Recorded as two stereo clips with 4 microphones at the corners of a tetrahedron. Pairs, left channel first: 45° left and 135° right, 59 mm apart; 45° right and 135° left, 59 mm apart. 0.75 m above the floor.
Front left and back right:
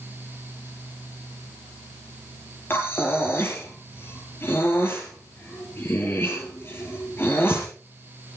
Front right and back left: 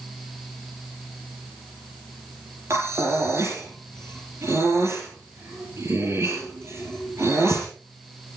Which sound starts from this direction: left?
Breathing, at 2.7 s.